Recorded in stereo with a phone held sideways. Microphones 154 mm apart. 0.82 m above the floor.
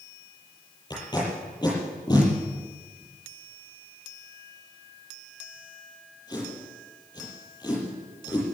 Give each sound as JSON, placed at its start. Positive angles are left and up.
{"t": 0.9, "sound": "tape being pulled", "side_deg": 25, "distance_m": 8.0}